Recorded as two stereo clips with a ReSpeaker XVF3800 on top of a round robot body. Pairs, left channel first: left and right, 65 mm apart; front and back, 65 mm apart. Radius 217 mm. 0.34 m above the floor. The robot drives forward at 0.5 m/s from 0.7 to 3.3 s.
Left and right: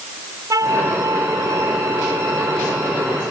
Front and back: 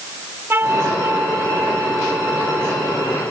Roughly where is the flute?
Behind right.